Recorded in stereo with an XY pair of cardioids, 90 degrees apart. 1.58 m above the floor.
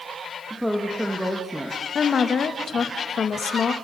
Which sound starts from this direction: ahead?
A woman speaking, at 0.5 s.